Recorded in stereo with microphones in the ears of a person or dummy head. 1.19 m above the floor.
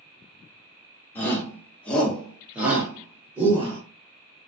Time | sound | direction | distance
1.1 | a shout | 15° left (ahead or behind) | 1.1 m